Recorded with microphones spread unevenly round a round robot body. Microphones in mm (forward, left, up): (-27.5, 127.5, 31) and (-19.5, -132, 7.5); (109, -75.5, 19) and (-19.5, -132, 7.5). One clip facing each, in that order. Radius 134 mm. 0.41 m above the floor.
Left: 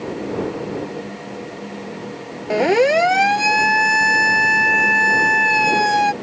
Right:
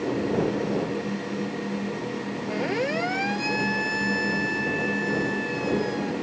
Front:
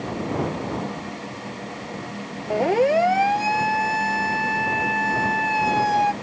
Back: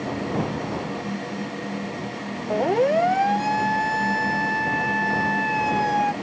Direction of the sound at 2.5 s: 110° left.